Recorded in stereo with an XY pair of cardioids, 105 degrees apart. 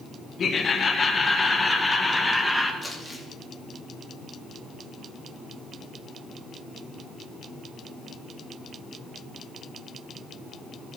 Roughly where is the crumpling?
Ahead.